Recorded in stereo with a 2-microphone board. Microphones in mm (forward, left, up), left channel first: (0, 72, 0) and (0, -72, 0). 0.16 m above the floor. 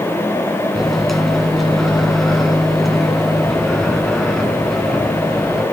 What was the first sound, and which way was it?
A microwave, centre (ahead or behind).